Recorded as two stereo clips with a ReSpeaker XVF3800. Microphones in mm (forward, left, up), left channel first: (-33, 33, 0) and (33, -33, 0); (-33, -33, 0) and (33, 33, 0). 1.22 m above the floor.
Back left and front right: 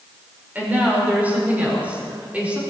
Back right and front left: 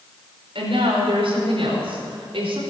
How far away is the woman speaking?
About 5.5 m.